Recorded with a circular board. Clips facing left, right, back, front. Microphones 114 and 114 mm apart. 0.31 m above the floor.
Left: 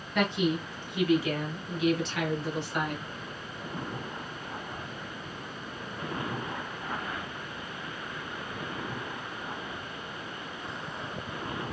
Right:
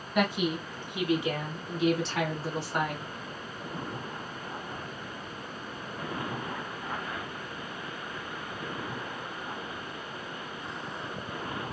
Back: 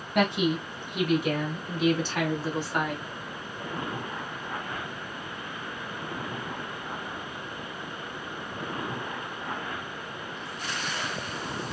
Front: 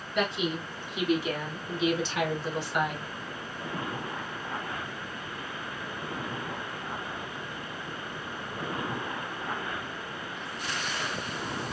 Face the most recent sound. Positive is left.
turn(degrees=-135)